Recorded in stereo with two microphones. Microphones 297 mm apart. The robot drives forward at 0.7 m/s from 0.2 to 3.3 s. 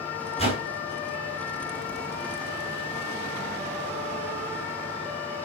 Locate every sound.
0.4 s a whoosh: 20° left (ahead or behind), 6 m